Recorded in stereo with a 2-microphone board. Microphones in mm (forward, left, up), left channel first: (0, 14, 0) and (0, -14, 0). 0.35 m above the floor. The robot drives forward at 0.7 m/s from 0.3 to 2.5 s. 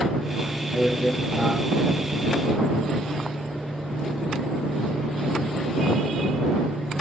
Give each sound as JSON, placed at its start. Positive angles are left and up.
{"t": 0.7, "sound": "a man speaking", "side_deg": 25, "distance_m": 7.0}